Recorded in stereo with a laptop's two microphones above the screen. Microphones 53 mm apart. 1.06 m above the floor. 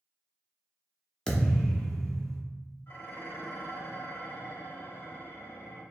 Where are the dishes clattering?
40° left (ahead or behind), 1.2 m.